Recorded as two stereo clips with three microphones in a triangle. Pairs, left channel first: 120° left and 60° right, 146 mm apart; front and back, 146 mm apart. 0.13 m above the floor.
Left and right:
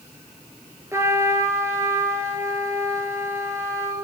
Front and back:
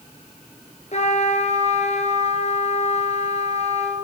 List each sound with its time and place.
0.9 s a trumpet: 5° left, 2.5 m